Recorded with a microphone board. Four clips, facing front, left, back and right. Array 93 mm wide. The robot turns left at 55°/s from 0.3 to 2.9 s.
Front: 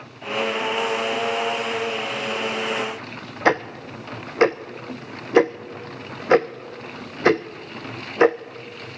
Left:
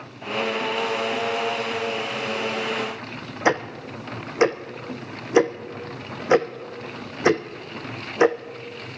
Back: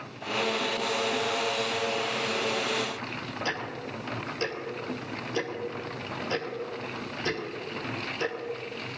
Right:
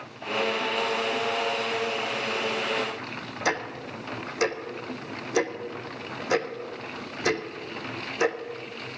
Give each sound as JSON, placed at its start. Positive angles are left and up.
{"t": 3.5, "sound": "ticking", "azimuth_deg": 30, "distance_m": 0.9}